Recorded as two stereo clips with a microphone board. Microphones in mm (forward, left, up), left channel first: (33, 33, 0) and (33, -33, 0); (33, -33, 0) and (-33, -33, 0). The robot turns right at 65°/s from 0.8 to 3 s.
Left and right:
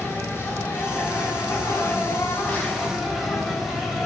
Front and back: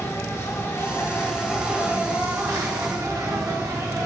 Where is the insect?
40° left, 2.5 m; by 4.1 s 175° right, 2.5 m.